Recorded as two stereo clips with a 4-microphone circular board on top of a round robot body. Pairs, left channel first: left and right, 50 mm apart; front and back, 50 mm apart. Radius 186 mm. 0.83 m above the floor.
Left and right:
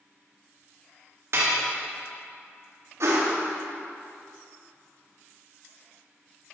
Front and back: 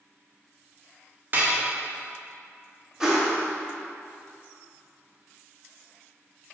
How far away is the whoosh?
About 1.7 m.